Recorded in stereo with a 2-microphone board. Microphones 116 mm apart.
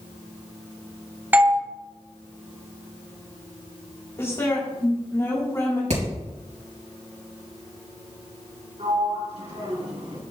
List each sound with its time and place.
1.3 s a doorbell: 15° right (ahead or behind), 1.0 m
4.2 s a woman speaking: 30° left (ahead or behind), 2.5 m
5.9 s hammering: 80° right, 4 m
8.8 s a sliding door: 70° right (ahead or behind), 3.5 m